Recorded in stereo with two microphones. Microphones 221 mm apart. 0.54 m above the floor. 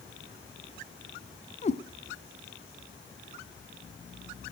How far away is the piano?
I don't hear a piano.